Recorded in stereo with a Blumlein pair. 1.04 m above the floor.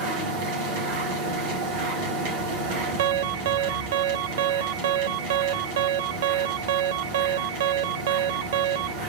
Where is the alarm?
55° right, 0.6 m.